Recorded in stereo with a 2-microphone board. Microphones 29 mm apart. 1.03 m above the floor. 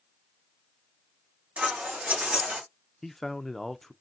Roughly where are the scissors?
Right.